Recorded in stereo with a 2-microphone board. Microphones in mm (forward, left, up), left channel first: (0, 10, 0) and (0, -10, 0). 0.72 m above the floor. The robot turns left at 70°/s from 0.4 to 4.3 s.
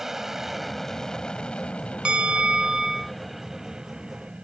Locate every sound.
0.0 s an aircraft: 165° right; by 4.4 s 80° right
2.0 s a bell: 90° right; by 3.1 s 170° right